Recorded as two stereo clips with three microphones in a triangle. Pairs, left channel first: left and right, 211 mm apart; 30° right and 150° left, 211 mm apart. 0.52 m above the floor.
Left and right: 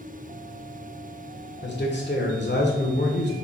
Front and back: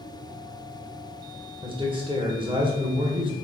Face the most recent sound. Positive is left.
turn(degrees=90)